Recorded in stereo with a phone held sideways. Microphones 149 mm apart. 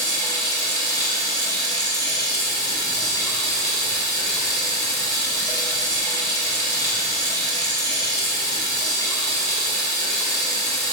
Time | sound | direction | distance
0.0 | running water | 25° left (ahead or behind) | 3 m